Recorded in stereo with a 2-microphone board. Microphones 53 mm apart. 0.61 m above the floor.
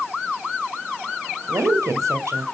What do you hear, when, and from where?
1.5 s a woman speaking: 75° right (ahead or behind), 2 m